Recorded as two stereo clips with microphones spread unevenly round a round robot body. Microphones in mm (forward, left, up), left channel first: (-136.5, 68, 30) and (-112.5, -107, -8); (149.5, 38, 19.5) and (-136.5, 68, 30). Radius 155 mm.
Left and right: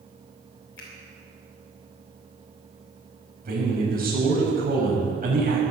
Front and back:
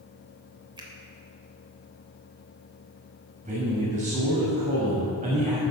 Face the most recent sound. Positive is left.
turn(degrees=-120)